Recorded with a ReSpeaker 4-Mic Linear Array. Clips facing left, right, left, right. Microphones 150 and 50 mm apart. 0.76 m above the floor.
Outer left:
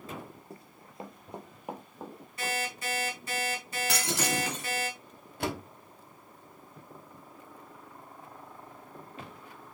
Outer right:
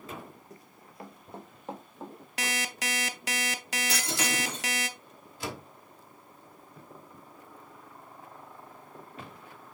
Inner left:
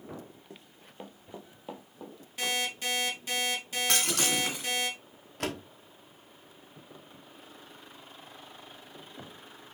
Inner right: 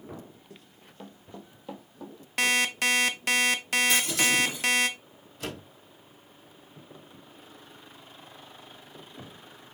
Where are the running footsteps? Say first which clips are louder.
Outer left 2 dB, even; 30° left (ahead or behind), 0.8 m; by 2.1 s 10° left (ahead or behind), 1.4 m.